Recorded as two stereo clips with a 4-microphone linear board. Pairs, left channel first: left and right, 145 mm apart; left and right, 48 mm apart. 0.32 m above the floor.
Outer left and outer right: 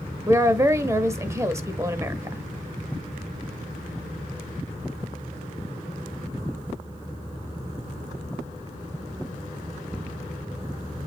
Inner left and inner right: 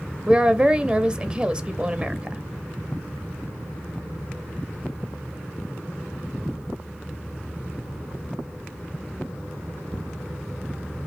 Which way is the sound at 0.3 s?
20° right (ahead or behind).